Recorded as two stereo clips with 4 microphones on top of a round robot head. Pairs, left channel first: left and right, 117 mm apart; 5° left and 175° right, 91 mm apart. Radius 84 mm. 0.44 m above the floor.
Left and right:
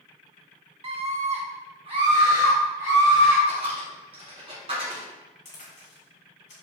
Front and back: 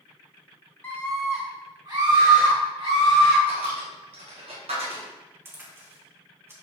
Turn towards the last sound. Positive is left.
turn(degrees=120)